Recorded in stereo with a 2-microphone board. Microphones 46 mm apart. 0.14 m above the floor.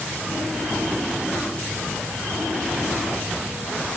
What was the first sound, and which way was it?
Only background noise.